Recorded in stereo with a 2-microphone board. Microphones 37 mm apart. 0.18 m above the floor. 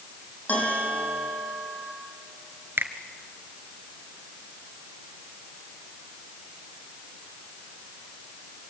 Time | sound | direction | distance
0.5 | a bell | 35° left (ahead or behind) | 6.5 m
2.8 | a finger snap | 65° right (ahead or behind) | 1.9 m